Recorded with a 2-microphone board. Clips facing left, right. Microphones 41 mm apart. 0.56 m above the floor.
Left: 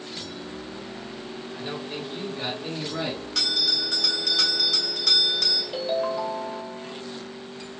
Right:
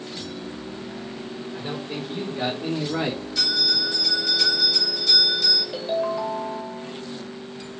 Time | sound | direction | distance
1.5 | a man speaking | 25° right (ahead or behind) | 2 m
3.4 | a bell | 60° left (ahead or behind) | 2 m
5.7 | a ringtone | centre (ahead or behind) | 1.5 m